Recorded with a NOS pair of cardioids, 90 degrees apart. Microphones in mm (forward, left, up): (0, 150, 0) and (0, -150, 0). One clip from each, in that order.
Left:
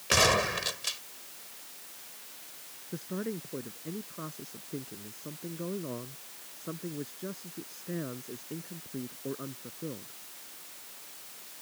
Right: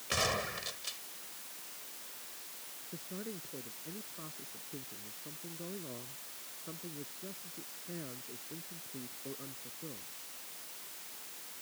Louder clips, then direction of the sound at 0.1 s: Left 9 dB; 60° left.